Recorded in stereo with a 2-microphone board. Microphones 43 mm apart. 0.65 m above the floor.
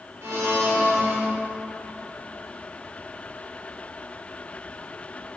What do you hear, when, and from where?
0.2 s a blender: 70° right (ahead or behind), 1.4 m